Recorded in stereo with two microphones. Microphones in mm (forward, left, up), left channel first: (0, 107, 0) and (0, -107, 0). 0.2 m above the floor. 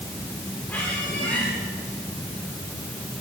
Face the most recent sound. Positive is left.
turn(degrees=5)  # may be behind; listen again after turning